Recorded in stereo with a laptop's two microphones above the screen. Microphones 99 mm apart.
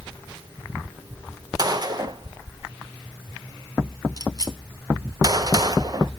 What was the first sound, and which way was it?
A gunshot, 40° right (ahead or behind).